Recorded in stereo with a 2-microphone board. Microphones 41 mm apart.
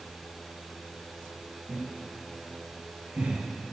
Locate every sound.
1.7 s laughter: 60° right (ahead or behind), 4 m; by 3.4 s 45° right (ahead or behind), 2.5 m